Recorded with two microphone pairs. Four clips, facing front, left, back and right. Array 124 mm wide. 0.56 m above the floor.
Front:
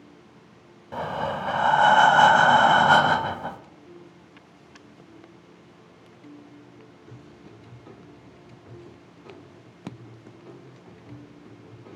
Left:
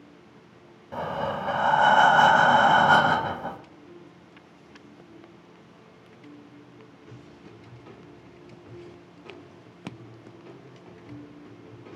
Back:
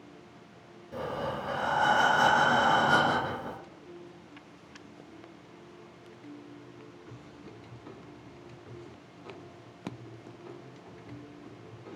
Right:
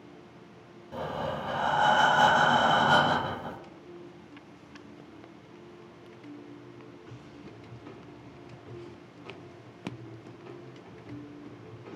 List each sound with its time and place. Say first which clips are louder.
0.9 s breathing: left 4 dB, front 6 dB; 25° left, 0.9 m